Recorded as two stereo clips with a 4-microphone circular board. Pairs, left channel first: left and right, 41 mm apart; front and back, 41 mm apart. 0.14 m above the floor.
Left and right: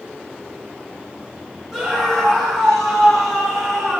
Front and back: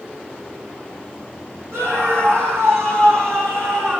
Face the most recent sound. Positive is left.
turn(degrees=-175)